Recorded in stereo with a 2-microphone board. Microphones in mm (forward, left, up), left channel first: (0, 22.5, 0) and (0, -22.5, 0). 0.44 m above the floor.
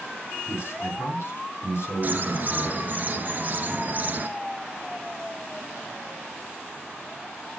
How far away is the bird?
About 1.2 m.